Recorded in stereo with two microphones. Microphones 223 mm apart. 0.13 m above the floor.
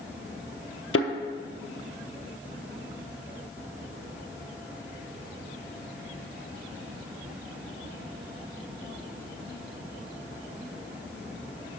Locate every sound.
0.9 s a thud: 70° left (ahead or behind), 0.7 m